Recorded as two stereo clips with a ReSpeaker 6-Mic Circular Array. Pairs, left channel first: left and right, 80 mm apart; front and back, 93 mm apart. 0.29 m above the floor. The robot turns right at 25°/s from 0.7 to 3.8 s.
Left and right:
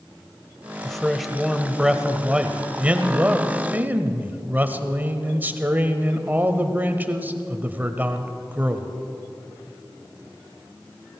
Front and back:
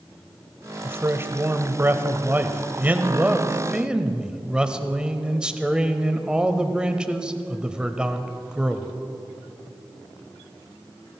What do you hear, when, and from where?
0.8 s a man speaking: 170° left, 0.9 m; by 8.9 s 115° right, 0.9 m